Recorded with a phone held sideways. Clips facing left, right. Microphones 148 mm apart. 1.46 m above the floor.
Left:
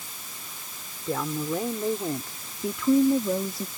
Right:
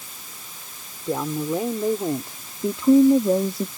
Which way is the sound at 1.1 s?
15° right (ahead or behind).